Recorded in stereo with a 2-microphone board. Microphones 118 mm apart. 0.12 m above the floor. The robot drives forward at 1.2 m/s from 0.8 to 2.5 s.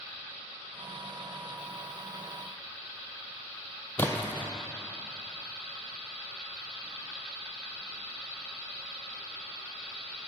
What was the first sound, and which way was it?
A splash, 15° left (ahead or behind).